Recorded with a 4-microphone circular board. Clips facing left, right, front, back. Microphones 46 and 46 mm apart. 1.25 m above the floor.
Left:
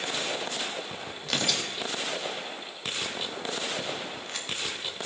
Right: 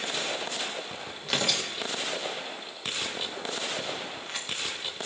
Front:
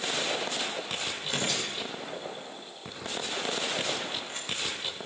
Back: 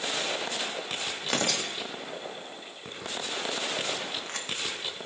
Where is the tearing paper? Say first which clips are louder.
Right 1 dB, back 4 dB; 175° right, 1.5 m.